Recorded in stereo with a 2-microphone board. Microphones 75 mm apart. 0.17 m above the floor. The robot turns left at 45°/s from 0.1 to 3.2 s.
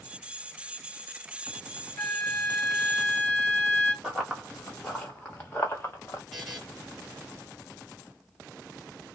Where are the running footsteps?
5° right (ahead or behind), 1.5 m; by 6.2 s 40° left (ahead or behind), 1.2 m.